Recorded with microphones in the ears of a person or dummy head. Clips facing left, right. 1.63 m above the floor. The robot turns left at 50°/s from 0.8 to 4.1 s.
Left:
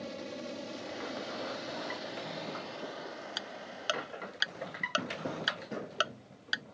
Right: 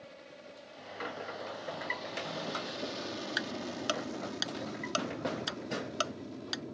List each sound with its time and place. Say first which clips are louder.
0.0 s an aircraft: left 10 dB; 60° left (ahead or behind); by 6.7 s 75° right (ahead or behind)
3.4 s ticking: right 7 dB; 25° right (ahead or behind); by 6.6 s 15° left (ahead or behind)